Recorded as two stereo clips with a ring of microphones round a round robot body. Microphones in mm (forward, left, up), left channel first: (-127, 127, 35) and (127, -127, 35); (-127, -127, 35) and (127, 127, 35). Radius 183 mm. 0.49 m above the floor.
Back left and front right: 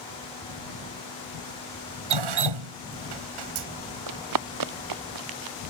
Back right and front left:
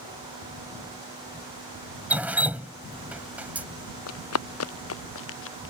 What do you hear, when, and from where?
2.1 s dripping: 40° right
4.1 s running footsteps: 85° right; by 5.7 s 75° right